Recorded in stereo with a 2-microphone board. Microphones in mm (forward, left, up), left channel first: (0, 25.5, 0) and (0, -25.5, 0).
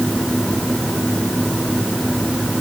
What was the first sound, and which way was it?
Only background noise.